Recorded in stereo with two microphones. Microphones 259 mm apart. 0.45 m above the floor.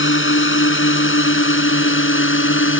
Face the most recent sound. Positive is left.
turn(degrees=50)  # may be behind; listen again after turning